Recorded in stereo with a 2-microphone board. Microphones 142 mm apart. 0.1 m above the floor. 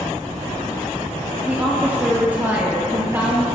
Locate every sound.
1.4 s a woman speaking: 15° right (ahead or behind), 4.5 m